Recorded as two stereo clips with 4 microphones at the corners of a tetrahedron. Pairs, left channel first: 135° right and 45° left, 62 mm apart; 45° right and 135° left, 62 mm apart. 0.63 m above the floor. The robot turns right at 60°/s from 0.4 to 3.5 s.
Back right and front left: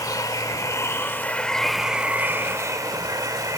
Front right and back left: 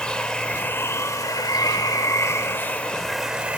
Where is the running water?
120° right, 0.8 m; by 3.6 s 65° left, 0.8 m.